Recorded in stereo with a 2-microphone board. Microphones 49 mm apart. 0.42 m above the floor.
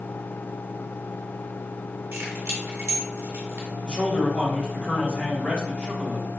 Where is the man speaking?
35° left (ahead or behind), 1.5 m.